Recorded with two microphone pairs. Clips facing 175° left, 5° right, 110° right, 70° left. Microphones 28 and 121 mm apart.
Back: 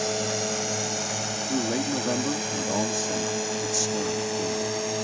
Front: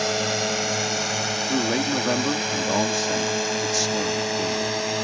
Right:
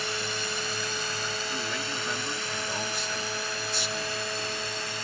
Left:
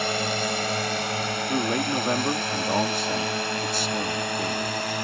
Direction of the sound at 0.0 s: 50° left.